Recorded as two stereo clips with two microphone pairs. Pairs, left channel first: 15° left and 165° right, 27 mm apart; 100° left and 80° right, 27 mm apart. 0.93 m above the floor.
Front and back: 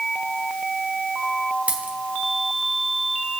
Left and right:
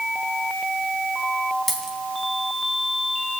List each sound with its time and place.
1.7 s a dropped coin: 170° right, 3 m